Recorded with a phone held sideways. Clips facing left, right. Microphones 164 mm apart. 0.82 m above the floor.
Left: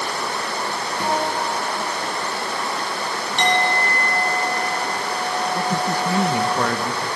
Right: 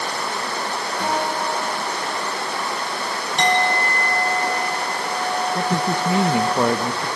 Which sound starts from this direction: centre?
A guitar, at 1.0 s.